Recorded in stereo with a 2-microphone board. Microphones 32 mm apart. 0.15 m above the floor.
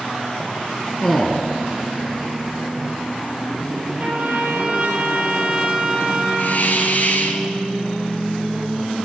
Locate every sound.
1.0 s a man speaking: 10° left (ahead or behind), 1.7 m
4.0 s a trumpet: 50° right (ahead or behind), 4 m
6.4 s a hiss: 60° left (ahead or behind), 1.8 m